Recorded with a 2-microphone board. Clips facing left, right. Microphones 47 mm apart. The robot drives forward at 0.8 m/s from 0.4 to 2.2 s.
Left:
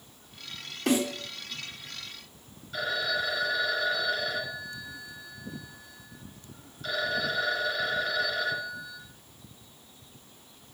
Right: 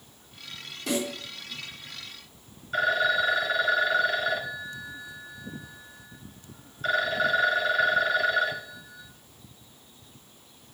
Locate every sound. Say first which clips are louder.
0.9 s a snare drum: left 3 dB; 80° left, 3.5 m; by 1.1 s 85° left, 3.5 m
2.7 s a phone ringing: right 6 dB; 45° right (ahead or behind), 0.8 m